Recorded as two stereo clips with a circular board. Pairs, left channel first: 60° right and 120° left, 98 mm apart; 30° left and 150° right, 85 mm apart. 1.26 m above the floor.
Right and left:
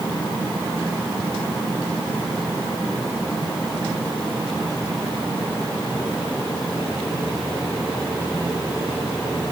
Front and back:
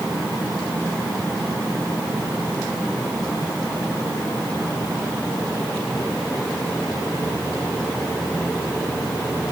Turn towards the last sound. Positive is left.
No sound to turn to.